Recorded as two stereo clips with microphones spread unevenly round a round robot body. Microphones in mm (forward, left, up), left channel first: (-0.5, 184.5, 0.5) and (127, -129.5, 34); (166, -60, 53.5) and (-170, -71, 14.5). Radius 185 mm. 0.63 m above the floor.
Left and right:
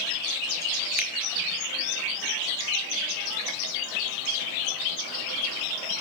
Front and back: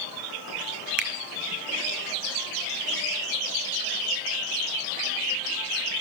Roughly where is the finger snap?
Behind left.